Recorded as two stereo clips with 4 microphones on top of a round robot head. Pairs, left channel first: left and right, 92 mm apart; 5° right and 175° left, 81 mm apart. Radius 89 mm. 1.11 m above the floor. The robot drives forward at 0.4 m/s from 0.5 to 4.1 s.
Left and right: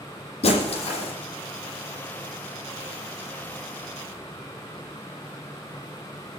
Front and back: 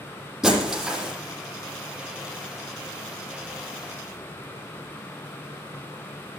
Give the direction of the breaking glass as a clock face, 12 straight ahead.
9 o'clock.